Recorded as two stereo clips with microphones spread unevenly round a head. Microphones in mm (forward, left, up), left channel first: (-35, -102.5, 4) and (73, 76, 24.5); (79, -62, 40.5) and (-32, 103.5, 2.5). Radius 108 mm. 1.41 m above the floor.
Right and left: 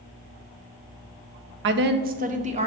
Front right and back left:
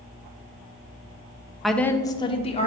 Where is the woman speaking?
30° left, 0.5 m; by 2.7 s straight ahead, 0.9 m.